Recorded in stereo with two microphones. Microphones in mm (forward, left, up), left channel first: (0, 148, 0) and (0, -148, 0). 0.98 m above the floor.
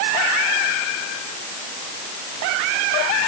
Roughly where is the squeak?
I don't hear a squeak.